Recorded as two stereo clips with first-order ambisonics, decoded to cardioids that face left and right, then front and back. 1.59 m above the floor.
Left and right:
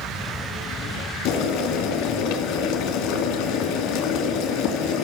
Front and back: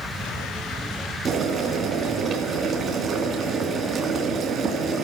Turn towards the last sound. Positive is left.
turn(degrees=120)